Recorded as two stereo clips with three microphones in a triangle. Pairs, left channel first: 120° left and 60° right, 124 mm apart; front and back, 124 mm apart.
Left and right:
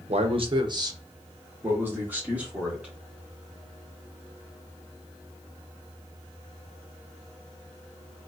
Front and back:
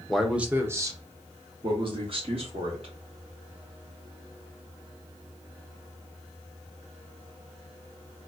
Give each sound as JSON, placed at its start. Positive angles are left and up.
{"t": 0.1, "sound": "a man speaking", "azimuth_deg": -85, "distance_m": 0.7}